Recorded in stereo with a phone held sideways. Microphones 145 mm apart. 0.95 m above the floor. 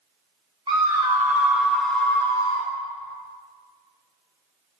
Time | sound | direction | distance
0.7 | a scream | 30° right (ahead or behind) | 1.8 m